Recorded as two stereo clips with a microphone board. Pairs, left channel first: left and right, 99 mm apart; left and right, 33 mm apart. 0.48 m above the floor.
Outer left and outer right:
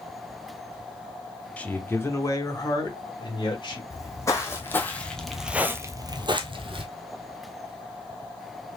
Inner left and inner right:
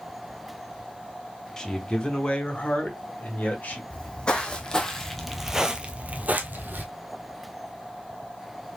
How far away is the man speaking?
About 0.9 m.